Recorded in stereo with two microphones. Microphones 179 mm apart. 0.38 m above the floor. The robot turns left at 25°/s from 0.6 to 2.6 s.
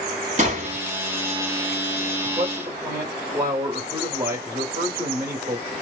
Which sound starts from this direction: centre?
A man speaking, at 2.2 s.